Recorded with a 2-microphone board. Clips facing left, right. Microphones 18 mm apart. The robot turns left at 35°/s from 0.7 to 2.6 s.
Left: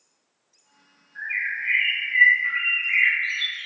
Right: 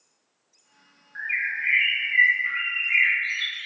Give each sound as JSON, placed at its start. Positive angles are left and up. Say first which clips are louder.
{"t": 1.1, "sound": "a bird", "louder": "even", "azimuth_deg": -145, "distance_m": 1.0}